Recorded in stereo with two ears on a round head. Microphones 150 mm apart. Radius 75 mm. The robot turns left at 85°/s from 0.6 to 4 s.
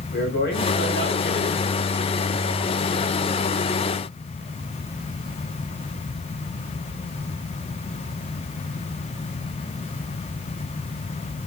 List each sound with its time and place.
0.1 s a man speaking: 110° left, 8.5 m; by 1.7 s 20° left, 8.5 m